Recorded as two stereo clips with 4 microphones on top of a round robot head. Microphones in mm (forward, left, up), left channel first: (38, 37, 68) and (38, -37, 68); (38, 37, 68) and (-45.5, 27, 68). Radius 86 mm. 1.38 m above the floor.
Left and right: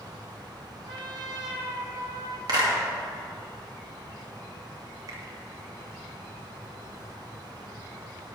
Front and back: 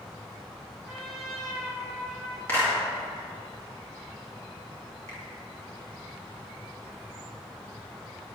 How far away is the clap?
About 2 m.